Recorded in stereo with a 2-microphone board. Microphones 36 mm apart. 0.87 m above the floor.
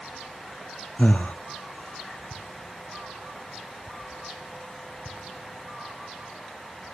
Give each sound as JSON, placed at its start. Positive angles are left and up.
{"t": 1.0, "sound": "breathing", "side_deg": 45, "distance_m": 0.6}